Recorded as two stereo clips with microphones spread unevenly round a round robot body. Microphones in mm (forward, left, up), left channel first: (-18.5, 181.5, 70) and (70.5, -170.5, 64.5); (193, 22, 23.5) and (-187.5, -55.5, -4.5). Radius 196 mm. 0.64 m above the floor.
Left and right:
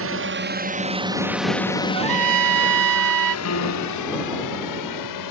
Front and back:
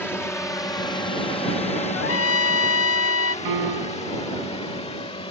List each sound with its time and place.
0.0 s a drone: 75° right; by 5.3 s 85° left
1.9 s a trumpet: 45° right
3.5 s a piano: 155° left